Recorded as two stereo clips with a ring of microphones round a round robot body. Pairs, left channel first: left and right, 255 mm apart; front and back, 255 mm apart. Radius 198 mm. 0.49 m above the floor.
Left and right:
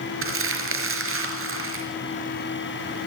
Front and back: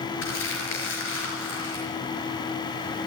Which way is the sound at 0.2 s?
55° right.